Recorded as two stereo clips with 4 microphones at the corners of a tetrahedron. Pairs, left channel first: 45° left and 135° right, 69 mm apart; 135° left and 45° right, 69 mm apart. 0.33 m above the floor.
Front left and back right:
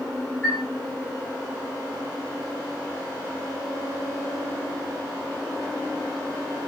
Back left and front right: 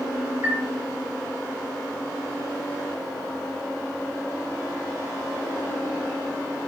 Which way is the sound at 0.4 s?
20° right.